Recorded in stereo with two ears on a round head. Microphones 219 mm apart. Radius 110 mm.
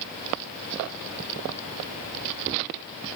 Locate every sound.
Only background noise.